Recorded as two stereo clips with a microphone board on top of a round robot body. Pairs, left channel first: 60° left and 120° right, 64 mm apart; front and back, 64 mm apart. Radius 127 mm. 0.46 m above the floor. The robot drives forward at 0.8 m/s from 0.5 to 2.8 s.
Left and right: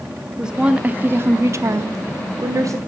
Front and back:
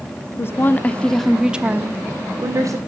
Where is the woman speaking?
45° right, 1.1 m; by 2.8 s 155° right, 1.5 m.